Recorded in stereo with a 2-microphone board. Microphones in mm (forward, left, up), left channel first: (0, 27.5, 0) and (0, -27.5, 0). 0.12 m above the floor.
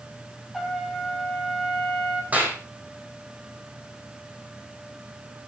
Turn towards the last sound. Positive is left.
turn(degrees=-30)  # may be behind; listen again after turning